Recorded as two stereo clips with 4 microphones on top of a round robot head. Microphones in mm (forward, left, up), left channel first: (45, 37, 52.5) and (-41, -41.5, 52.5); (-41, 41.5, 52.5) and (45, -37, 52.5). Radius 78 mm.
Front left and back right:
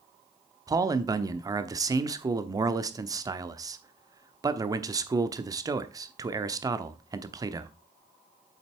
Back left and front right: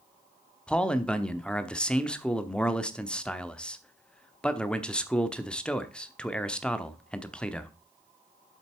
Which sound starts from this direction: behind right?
A man speaking, at 0.7 s.